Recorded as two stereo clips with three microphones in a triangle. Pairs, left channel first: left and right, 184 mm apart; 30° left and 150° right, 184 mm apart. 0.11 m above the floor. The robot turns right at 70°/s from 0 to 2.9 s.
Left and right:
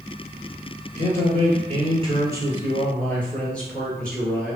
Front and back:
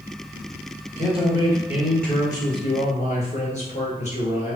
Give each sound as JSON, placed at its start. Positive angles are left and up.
{"t": 1.0, "sound": "a man speaking", "azimuth_deg": -125, "distance_m": 1.7}